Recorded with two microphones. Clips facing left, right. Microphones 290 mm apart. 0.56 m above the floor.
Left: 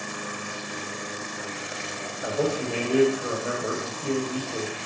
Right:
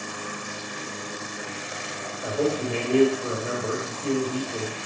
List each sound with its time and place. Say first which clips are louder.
2.2 s a man speaking: right 1 dB; 5° left (ahead or behind), 2.5 m